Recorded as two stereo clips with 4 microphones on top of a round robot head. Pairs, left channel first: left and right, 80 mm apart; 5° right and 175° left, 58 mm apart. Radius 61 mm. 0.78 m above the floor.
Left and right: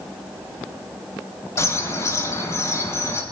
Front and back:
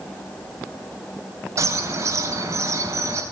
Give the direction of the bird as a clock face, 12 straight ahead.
7 o'clock.